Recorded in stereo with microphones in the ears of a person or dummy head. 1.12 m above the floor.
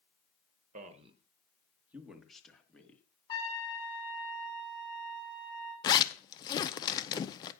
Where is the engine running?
No engine running in this recording.